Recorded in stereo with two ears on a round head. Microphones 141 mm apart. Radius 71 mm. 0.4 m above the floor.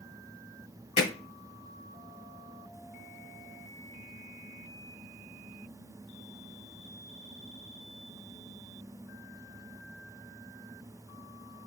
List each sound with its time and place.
1.0 s hammering: 45° left (ahead or behind), 1.1 m